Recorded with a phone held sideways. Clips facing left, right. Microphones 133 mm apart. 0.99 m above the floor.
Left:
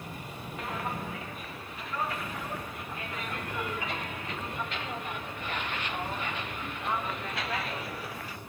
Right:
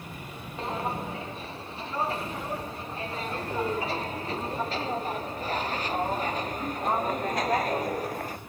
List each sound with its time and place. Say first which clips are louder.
0.6 s footsteps: right 5 dB; 30° right (ahead or behind); by 8.4 s 45° right (ahead or behind)